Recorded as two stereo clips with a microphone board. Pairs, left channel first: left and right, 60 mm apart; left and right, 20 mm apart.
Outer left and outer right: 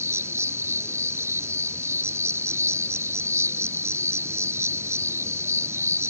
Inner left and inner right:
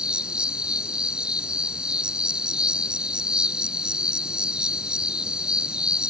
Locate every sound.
0.0 s an insect: 50° right (ahead or behind)